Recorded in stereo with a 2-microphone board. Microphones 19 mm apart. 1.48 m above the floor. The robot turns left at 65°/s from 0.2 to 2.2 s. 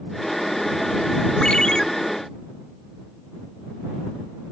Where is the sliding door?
No sliding door in this recording.